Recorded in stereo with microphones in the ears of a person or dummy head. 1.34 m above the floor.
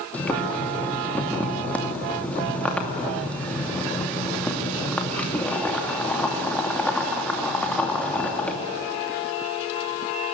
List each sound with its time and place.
0.1 s boiling: 10° left (ahead or behind), 2.5 m